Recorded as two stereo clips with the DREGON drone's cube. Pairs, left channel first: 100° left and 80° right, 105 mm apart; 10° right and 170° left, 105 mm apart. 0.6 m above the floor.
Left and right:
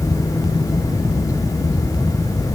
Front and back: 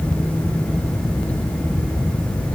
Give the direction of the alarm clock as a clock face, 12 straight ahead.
No alarm clock in this recording.